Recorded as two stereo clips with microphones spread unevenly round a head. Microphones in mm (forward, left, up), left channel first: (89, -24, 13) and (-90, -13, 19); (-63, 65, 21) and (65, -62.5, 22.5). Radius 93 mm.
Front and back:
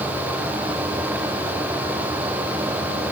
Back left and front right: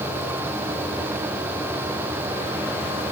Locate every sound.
Only background noise.